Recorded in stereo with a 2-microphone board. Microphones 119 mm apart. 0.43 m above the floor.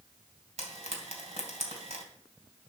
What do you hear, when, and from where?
0.6 s frying: 70° right (ahead or behind), 2.5 m